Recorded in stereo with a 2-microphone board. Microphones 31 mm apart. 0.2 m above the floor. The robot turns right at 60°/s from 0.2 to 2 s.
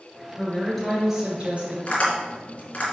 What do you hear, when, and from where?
0.4 s a woman speaking: 155° left, 2 m; by 1.8 s 120° right, 2 m
1.9 s tapping: 35° left (ahead or behind), 2.5 m; by 2.9 s 40° left (ahead or behind), 2.5 m